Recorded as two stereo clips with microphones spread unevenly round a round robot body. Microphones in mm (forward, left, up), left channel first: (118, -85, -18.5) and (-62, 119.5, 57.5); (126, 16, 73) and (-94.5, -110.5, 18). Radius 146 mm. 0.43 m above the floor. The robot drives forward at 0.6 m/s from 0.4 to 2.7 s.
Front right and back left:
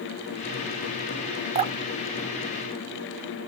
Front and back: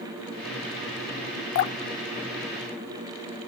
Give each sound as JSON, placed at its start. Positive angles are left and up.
{"t": 1.6, "sound": "dripping", "azimuth_deg": 50}